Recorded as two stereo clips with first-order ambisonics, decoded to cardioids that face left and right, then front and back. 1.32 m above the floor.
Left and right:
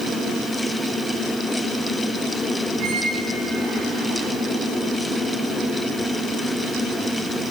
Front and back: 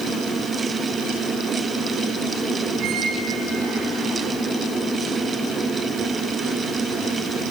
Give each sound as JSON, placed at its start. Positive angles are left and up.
{"t": 2.8, "sound": "a squeak", "azimuth_deg": -135, "distance_m": 7.5}